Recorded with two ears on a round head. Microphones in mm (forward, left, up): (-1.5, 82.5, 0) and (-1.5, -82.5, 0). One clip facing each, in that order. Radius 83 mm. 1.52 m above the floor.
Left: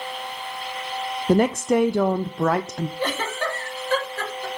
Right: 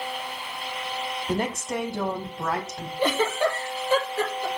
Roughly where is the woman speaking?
Left.